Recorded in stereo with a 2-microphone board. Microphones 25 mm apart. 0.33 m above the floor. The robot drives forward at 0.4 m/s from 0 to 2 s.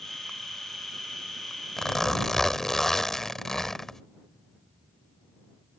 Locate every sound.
1.8 s a zipper: 20° left (ahead or behind)